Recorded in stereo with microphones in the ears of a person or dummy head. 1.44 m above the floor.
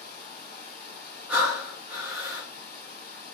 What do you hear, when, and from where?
0.0 s running water: 40° right (ahead or behind), 1.6 m
1.3 s breathing: 15° right (ahead or behind), 0.8 m